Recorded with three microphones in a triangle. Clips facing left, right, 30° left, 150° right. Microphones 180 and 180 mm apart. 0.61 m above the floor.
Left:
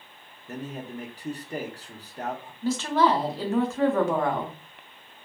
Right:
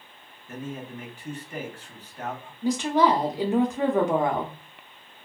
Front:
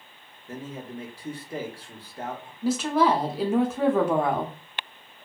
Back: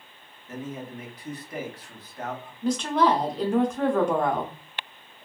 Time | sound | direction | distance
0.5 | a man speaking | 70° left | 0.7 m
2.6 | a woman speaking | 45° right | 0.5 m